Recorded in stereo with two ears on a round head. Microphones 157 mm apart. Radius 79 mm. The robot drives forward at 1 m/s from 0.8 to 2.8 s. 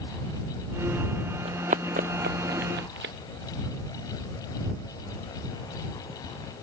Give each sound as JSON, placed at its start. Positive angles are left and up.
{"t": 1.4, "sound": "running footsteps", "side_deg": -35}